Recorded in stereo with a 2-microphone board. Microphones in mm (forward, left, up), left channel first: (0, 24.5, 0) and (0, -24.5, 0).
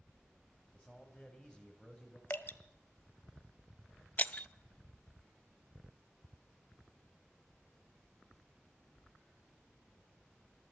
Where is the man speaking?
15° left (ahead or behind), 3.5 m.